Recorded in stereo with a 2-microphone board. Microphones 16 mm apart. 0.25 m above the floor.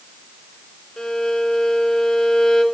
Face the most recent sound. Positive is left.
turn(degrees=45)  # may be behind; listen again after turning